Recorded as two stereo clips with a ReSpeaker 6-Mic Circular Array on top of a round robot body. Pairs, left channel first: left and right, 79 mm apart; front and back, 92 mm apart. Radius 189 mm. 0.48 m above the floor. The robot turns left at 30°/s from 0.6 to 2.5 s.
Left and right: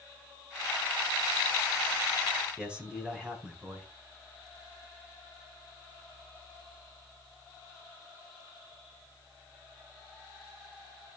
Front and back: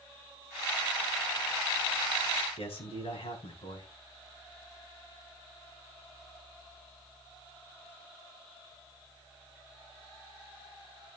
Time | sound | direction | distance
2.6 | a man speaking | 10° right | 5.5 m